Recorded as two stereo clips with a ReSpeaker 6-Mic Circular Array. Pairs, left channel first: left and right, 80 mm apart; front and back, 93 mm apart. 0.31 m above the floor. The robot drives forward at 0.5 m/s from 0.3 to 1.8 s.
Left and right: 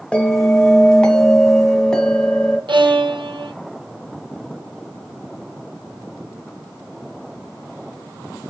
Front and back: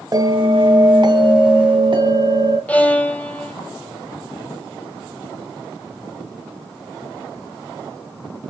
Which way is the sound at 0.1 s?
165° left.